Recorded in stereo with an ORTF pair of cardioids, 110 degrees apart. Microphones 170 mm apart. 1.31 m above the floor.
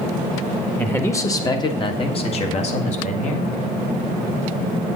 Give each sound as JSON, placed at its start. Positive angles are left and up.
{"t": 0.8, "sound": "a man speaking", "azimuth_deg": 10, "distance_m": 1.8}